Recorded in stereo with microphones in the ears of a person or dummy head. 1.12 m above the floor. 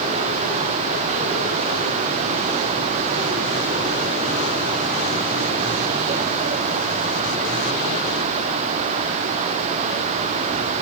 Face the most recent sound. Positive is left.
No sound to turn to.